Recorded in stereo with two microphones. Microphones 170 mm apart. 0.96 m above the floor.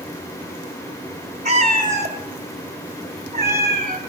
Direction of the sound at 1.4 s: 40° right (ahead or behind).